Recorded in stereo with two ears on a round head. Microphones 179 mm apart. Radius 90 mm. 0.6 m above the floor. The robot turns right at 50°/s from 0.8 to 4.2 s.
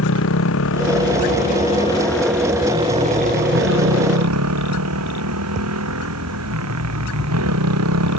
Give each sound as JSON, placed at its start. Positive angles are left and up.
{"t": 0.0, "sound": "a motorcycle", "azimuth_deg": 105}